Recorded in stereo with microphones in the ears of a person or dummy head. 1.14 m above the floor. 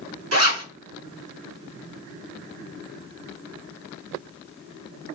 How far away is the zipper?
About 2 m.